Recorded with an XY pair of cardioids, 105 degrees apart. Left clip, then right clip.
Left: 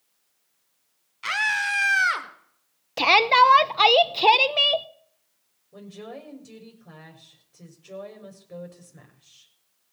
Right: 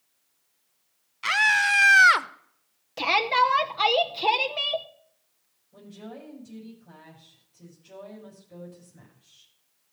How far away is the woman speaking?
About 4.5 m.